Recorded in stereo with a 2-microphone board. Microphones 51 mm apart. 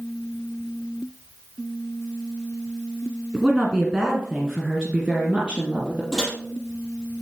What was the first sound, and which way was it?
A woman speaking, 10° right (ahead or behind).